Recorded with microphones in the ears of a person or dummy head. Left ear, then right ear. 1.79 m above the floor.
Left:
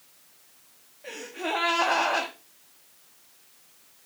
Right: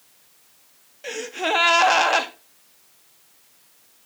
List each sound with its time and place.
1.0 s a gasp: 75° right (ahead or behind), 1.1 m